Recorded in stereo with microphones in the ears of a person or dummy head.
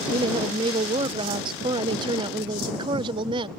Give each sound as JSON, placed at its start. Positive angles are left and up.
{"t": 0.1, "sound": "a woman speaking", "side_deg": -25}